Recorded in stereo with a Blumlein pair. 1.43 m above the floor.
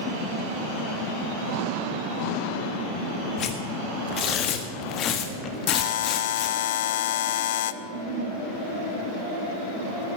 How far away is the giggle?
About 5.5 m.